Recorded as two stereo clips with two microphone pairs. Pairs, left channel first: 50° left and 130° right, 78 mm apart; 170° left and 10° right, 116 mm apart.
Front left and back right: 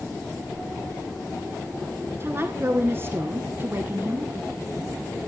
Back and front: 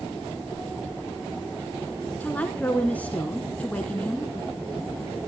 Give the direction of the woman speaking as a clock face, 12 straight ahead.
4 o'clock.